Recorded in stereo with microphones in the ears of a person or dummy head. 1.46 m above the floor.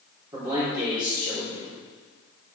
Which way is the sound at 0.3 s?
25° right (ahead or behind).